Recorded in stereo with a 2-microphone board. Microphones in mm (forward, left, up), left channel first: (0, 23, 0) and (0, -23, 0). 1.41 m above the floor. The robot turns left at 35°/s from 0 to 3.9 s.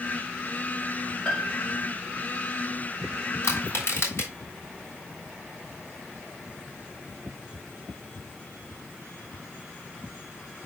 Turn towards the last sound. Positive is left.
turn(degrees=60)  # may be behind; listen again after turning